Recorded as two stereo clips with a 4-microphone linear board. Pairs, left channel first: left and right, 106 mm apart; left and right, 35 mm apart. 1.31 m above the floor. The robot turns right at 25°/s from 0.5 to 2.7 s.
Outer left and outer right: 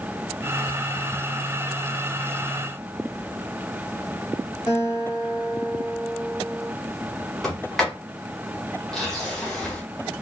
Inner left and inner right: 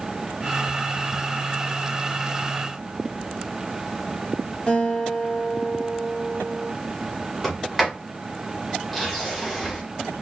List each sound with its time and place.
4.7 s a guitar: 40° left (ahead or behind), 2 m
7.4 s a sliding door: 5° left (ahead or behind), 1.8 m